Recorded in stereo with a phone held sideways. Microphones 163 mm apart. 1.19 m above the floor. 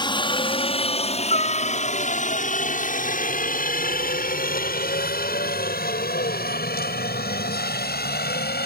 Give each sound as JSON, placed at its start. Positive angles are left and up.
{"t": 0.0, "sound": "a helicopter", "side_deg": 30}